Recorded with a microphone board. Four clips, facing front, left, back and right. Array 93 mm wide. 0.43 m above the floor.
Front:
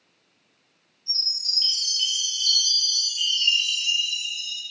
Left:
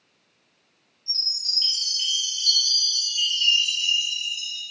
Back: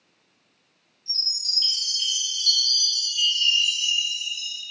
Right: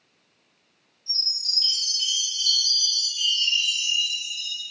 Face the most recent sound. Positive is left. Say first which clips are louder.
# even, even
turn(degrees=55)